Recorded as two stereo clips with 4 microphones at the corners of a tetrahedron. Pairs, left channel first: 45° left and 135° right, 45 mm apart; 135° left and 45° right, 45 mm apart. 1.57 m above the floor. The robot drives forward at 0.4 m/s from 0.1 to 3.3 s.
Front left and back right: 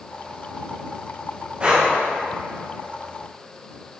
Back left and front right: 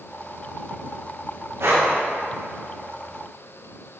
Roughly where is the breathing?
Right.